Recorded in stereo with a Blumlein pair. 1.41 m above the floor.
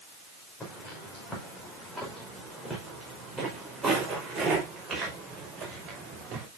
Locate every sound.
0.6 s footsteps: 15° left, 5 m; by 6.5 s 25° right, 6 m